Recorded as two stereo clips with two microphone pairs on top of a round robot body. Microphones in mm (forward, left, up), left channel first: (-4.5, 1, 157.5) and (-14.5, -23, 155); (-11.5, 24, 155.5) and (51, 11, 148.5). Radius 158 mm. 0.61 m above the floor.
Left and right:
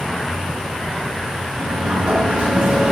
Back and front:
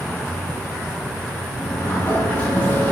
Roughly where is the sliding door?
Behind right.